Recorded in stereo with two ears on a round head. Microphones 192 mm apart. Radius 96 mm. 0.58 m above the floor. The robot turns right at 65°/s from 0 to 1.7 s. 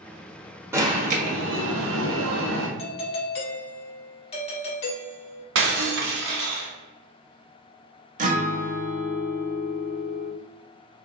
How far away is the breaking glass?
About 1.3 m.